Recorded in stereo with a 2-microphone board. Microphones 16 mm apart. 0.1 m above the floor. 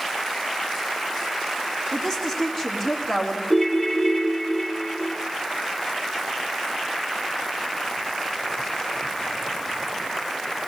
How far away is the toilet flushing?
I don't hear a toilet flushing.